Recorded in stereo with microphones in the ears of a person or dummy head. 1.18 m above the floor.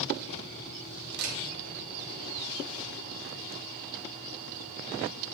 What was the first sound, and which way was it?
A camera shutter, 60° right (ahead or behind).